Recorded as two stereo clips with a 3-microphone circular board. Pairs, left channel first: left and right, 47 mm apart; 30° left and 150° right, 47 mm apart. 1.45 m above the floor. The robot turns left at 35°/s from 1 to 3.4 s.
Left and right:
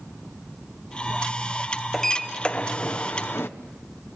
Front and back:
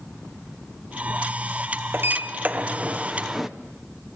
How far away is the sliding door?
About 1.0 m.